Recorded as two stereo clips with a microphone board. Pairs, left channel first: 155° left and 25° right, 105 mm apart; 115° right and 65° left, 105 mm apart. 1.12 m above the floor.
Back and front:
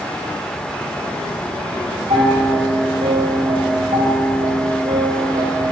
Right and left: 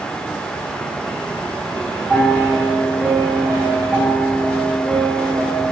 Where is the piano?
30° right, 1.7 m.